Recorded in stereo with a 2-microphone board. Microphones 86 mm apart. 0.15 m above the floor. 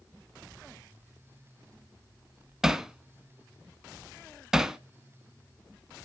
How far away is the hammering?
About 0.6 m.